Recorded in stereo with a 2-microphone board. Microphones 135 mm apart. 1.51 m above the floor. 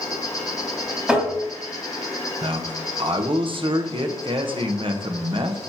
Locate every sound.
0.0 s an insect: 25° left (ahead or behind), 0.9 m
1.1 s tapping: 10° right (ahead or behind), 2 m
2.4 s a man speaking: 40° right (ahead or behind), 0.7 m